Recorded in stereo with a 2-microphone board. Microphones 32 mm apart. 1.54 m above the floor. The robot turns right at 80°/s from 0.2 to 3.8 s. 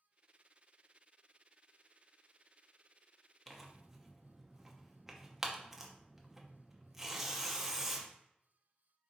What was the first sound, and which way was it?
Tearing paper, 5° left (ahead or behind).